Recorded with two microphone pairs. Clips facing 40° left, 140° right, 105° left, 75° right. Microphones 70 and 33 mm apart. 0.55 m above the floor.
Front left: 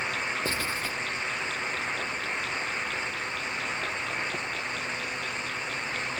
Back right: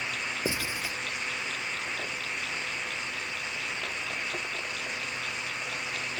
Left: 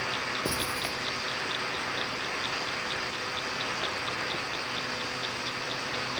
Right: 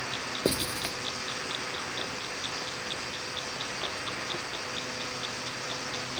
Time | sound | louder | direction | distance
0.5 | writing | front left 2 dB, right 1 dB | 70° right | 1.8 m